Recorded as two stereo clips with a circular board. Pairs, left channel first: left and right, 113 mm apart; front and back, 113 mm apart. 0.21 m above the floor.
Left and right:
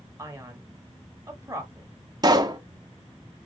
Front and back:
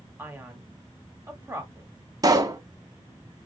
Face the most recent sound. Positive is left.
turn(degrees=-130)